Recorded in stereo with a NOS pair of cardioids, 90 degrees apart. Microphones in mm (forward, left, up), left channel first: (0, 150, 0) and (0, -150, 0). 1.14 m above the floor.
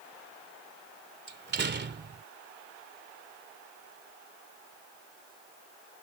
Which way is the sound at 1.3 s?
35° right.